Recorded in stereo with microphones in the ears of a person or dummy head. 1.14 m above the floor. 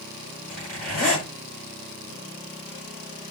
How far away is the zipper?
About 8 m.